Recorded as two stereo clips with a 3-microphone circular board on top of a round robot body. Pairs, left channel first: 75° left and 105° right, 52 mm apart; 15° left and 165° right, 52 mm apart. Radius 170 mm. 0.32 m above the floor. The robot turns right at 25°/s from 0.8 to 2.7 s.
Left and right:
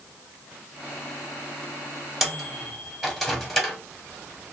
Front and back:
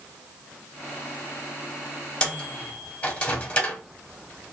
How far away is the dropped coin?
No dropped coin in this recording.